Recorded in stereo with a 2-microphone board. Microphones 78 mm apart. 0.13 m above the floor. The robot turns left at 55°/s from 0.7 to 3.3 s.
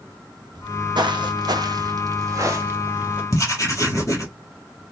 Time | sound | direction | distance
0.6 | footsteps | 85° right | 1.2 m
3.3 | writing | 45° left (ahead or behind) | 2.5 m